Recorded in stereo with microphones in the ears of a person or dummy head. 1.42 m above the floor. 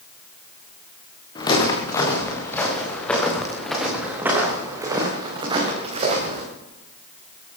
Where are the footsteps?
25° left (ahead or behind), 7 m; by 6.4 s 40° right (ahead or behind), 6.5 m.